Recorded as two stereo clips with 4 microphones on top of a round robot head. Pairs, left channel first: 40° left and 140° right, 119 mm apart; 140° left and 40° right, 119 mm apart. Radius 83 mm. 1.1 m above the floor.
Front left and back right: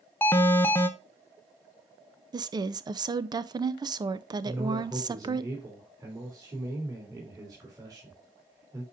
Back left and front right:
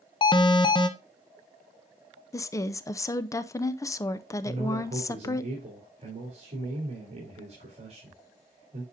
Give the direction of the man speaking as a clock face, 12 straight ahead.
3 o'clock.